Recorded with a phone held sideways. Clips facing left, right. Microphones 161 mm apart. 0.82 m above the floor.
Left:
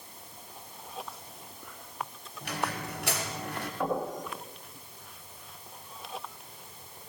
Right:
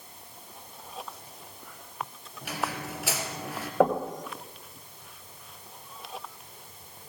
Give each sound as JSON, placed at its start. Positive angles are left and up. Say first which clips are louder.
{"t": 2.4, "sound": "a squeak", "louder": "right 1 dB", "side_deg": 0, "distance_m": 3.0}
{"t": 3.8, "sound": "knocking", "louder": "right 8 dB", "side_deg": -80, "distance_m": 2.5}